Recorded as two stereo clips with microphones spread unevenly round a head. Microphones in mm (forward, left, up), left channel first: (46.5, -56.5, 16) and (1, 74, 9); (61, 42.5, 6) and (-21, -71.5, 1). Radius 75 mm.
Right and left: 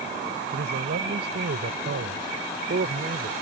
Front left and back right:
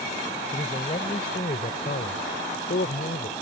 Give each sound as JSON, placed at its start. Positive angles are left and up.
{"t": 0.5, "sound": "a man speaking", "azimuth_deg": 115}